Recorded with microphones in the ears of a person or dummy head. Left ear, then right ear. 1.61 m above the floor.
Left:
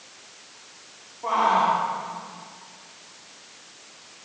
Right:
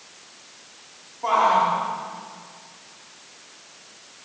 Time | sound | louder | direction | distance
1.2 | a shout | right 2 dB | 90° right | 5 m